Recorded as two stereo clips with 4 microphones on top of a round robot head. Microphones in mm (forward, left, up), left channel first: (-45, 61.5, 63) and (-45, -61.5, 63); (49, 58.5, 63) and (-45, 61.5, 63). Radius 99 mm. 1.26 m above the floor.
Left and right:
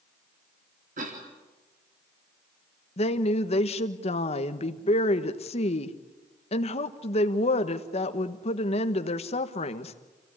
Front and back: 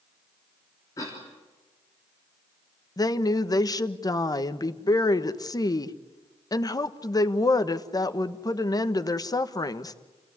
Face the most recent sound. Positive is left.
turn(degrees=45)